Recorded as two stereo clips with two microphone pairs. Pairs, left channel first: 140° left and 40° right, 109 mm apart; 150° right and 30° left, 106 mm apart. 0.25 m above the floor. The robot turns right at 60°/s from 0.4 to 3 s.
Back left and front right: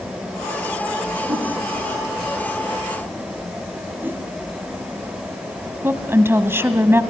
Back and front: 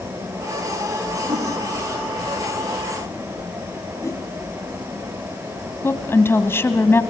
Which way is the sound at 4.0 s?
100° right.